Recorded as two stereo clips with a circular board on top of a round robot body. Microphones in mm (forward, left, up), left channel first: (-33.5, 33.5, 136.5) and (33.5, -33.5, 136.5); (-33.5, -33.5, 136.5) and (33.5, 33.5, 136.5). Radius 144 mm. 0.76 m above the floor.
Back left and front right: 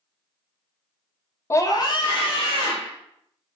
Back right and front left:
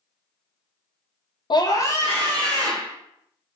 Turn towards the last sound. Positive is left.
turn(degrees=140)